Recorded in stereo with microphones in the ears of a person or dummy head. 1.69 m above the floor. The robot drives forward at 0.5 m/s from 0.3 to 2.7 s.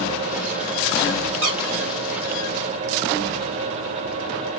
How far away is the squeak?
About 1.1 m.